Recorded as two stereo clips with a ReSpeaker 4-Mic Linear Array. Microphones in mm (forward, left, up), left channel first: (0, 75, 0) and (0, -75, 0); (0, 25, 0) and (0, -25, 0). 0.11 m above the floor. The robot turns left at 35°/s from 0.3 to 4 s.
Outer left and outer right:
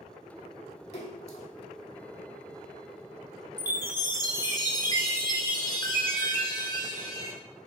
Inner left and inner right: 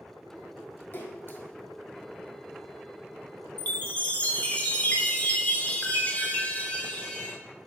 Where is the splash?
45° left (ahead or behind), 0.6 m; by 1.5 s 50° left (ahead or behind), 0.6 m.